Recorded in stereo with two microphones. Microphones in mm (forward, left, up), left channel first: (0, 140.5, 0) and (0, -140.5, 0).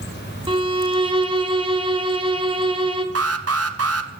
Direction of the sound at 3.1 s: 55° right (ahead or behind).